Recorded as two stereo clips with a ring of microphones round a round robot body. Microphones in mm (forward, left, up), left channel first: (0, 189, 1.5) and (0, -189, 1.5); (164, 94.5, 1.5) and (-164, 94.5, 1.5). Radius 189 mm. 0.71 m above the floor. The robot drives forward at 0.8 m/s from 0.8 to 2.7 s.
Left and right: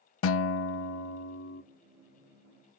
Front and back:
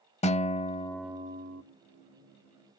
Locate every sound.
0.2 s a guitar: 60° left, 0.6 m; by 1.6 s 145° left, 0.7 m